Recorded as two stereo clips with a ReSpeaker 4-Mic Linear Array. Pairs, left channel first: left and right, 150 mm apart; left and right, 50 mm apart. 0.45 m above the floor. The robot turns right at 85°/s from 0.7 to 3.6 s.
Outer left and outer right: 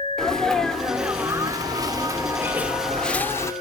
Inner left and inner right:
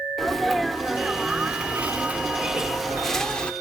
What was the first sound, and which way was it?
A sneeze, 5° left (ahead or behind).